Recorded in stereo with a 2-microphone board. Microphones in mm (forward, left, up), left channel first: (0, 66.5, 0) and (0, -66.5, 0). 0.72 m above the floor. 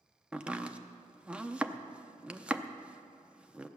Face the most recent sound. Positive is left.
turn(degrees=-10)  # may be behind; listen again after turning